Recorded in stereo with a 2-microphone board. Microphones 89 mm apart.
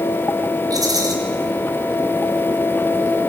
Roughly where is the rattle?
Right.